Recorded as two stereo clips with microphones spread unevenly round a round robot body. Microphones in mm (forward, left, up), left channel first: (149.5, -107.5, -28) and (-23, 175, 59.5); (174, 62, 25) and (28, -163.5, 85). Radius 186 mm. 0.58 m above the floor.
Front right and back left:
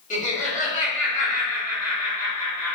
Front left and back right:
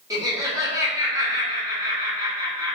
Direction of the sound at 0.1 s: 35° right.